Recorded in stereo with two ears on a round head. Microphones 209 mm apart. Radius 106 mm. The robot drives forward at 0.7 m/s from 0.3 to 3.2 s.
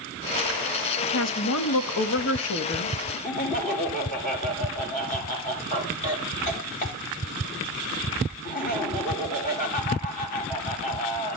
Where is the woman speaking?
45° left (ahead or behind), 1.4 m; by 3.0 s 55° left (ahead or behind), 1.2 m.